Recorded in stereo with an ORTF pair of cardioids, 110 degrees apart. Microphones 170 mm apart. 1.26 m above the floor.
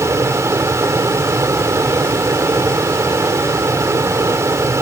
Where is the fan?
15° right.